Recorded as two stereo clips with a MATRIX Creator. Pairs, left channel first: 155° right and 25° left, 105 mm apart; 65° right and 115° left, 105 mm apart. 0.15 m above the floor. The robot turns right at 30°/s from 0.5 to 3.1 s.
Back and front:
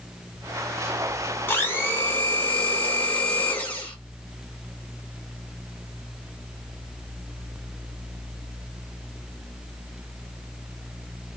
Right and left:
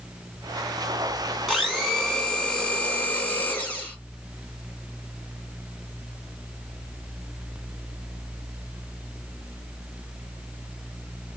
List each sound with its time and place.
1.5 s a blender: 155° right, 1.4 m; by 4.0 s 110° right, 1.4 m